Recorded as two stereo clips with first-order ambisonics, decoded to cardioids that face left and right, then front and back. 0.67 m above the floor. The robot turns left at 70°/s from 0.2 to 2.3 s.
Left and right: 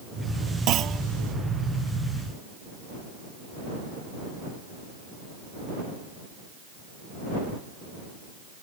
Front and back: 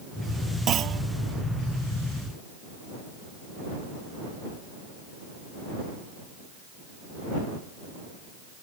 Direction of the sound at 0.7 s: 125° right.